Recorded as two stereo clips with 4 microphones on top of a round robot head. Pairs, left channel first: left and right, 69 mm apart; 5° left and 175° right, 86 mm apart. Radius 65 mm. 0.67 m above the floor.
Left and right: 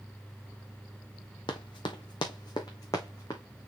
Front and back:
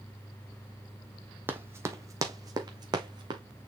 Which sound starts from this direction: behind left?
Running footsteps, at 1.5 s.